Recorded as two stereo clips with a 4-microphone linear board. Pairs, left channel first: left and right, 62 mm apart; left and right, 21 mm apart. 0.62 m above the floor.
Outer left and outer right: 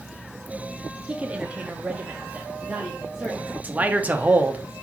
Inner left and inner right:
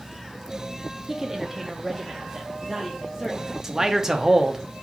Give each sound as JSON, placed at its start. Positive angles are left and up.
{"t": 1.1, "sound": "a woman speaking", "side_deg": -20, "distance_m": 0.7}
{"t": 3.6, "sound": "a man speaking", "side_deg": -25, "distance_m": 0.6}